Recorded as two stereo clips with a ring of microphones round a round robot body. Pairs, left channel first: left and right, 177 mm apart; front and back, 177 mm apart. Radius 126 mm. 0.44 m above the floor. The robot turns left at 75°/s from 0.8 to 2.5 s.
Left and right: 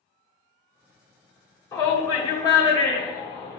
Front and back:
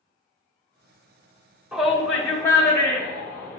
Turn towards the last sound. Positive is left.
turn(degrees=55)